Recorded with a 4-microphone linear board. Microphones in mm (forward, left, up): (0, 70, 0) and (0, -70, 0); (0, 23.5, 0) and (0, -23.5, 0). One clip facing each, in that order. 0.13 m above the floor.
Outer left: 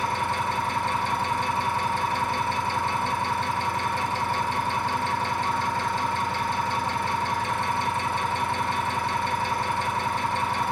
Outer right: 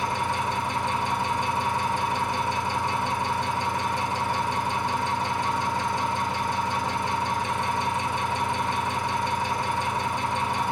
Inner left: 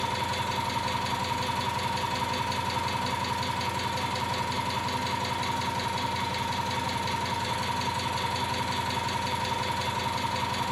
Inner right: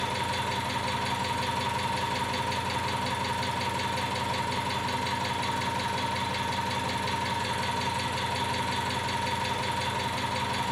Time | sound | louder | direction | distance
0.0 | an engine running | even, even | 15° right (ahead or behind) | 0.9 m